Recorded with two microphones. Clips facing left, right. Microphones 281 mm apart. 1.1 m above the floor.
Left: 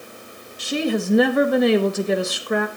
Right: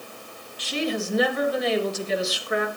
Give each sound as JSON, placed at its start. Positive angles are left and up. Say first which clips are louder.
{"t": 0.6, "sound": "a woman speaking", "louder": "left 5 dB", "side_deg": 50, "distance_m": 1.9}